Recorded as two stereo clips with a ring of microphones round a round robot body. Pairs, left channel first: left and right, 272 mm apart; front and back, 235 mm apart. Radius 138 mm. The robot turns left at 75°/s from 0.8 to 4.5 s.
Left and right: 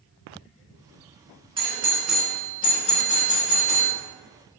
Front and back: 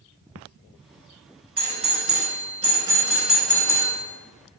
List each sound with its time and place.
1.6 s a doorbell: 140° right, 1.3 m; by 3.9 s 45° left, 1.3 m